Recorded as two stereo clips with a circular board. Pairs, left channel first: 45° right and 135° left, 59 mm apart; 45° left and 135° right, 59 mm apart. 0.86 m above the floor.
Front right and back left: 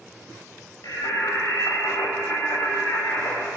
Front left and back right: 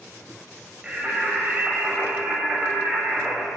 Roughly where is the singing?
Ahead right.